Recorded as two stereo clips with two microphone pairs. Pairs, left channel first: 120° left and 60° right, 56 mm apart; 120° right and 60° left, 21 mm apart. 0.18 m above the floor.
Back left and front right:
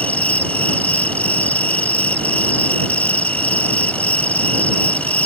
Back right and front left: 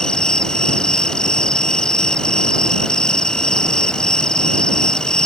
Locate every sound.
0.0 s an insect: 175° right